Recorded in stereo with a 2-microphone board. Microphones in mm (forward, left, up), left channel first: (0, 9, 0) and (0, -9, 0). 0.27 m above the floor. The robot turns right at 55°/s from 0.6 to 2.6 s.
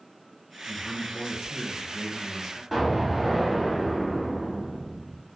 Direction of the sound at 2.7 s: 5° right (ahead or behind).